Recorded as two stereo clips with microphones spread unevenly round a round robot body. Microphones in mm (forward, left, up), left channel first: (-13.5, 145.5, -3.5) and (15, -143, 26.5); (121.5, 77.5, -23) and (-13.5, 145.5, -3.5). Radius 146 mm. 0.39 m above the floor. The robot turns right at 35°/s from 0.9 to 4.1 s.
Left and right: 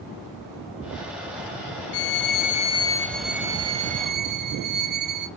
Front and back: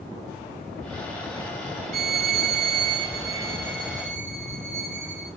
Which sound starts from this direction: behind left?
A violin, at 1.9 s.